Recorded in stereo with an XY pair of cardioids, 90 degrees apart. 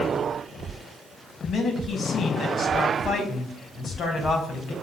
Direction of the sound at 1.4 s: 60° left.